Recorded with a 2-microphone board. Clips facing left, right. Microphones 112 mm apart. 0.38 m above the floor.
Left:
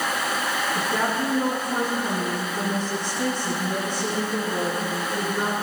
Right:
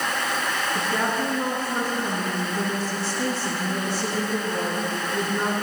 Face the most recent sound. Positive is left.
turn(degrees=-5)  # may be behind; listen again after turning